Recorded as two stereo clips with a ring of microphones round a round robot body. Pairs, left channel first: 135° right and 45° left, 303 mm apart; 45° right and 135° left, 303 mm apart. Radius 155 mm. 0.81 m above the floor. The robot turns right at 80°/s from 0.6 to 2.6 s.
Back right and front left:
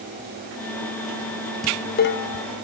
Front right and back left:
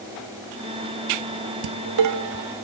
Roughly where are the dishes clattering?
Behind left.